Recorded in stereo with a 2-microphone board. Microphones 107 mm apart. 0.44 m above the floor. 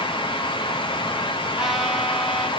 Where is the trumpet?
5° right (ahead or behind), 7 m.